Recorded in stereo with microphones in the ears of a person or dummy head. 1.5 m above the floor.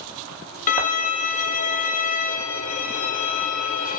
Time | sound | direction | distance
0.7 | a violin | 40° left (ahead or behind) | 0.7 m